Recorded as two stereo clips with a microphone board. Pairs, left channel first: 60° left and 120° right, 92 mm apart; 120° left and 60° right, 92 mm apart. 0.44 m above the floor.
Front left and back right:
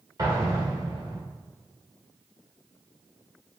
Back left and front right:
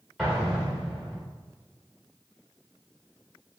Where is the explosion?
145° right, 1.7 m.